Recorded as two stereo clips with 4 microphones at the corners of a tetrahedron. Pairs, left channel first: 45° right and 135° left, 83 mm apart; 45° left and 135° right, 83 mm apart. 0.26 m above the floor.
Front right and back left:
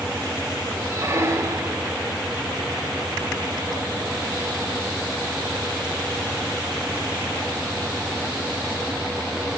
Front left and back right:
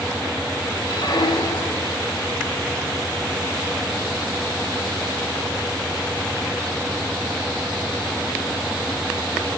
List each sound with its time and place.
0.9 s a squeak: 75° left, 1.4 m